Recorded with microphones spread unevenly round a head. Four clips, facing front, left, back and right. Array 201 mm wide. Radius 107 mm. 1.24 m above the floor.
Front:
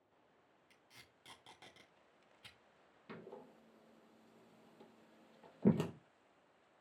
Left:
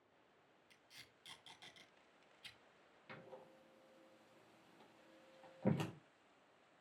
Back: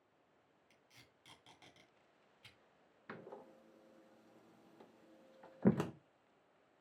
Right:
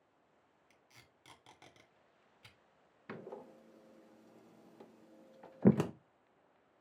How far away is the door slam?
About 0.9 m.